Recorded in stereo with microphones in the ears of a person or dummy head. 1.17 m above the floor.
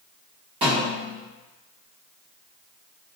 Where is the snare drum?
25° right (ahead or behind), 0.8 m.